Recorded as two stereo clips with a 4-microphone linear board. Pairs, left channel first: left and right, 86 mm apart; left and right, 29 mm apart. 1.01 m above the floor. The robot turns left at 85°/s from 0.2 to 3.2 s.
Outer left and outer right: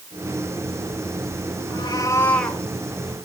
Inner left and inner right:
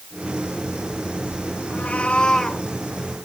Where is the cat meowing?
70° left, 2.5 m; by 2.6 s 5° right, 2.5 m.